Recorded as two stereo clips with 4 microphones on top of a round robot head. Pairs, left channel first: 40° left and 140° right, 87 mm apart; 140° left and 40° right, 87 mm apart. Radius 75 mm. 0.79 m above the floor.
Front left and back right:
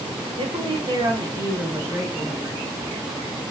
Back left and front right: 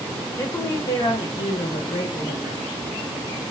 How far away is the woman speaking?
About 1.0 m.